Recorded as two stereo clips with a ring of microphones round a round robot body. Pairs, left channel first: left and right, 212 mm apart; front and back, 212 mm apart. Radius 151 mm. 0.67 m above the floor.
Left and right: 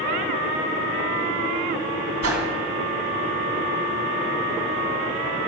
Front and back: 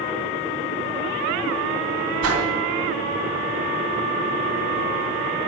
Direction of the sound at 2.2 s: 140° right.